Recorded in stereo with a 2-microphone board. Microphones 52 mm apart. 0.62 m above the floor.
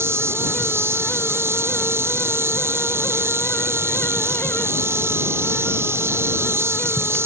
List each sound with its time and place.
0.0 s an insect: 55° right (ahead or behind)